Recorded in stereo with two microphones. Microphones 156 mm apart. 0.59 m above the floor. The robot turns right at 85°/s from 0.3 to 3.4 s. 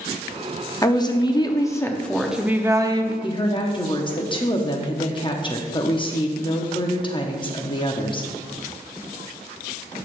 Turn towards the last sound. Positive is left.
turn(degrees=30)  # may be behind; listen again after turning